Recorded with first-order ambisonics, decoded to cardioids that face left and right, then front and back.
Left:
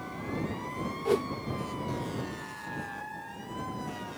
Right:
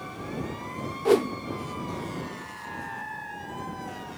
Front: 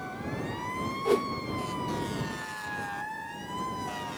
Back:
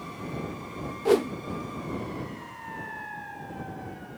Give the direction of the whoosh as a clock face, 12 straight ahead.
4 o'clock.